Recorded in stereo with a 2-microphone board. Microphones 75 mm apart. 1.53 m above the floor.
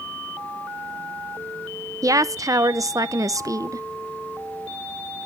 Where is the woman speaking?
50° right (ahead or behind), 0.6 m.